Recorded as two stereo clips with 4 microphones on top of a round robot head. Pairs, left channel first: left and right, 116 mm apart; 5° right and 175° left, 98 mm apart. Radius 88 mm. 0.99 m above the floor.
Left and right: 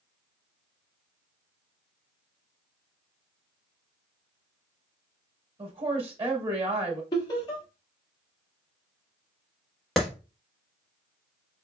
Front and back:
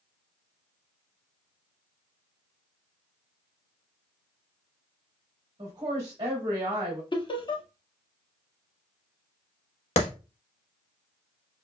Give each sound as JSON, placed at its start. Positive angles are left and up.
{"t": 5.6, "sound": "a woman speaking", "azimuth_deg": -125, "distance_m": 1.7}
{"t": 7.1, "sound": "laughter", "azimuth_deg": 30, "distance_m": 1.5}
{"t": 10.0, "sound": "a clap", "azimuth_deg": 0, "distance_m": 1.2}